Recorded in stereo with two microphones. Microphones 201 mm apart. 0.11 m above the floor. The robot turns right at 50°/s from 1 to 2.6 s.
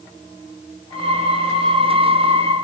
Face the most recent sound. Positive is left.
No sound to turn to.